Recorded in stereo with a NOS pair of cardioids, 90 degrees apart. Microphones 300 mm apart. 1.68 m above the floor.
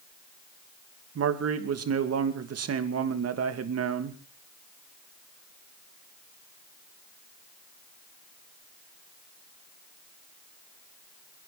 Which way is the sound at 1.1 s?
55° right.